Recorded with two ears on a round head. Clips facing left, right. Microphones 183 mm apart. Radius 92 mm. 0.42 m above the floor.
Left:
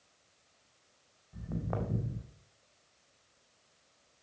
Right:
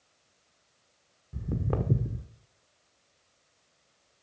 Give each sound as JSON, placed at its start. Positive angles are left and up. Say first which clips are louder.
{"t": 1.3, "sound": "footsteps", "louder": "right 5 dB", "side_deg": -45, "distance_m": 1.2}